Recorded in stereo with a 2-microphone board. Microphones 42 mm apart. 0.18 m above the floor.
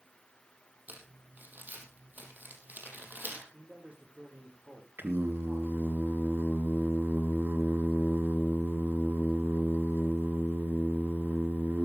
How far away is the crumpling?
About 4 m.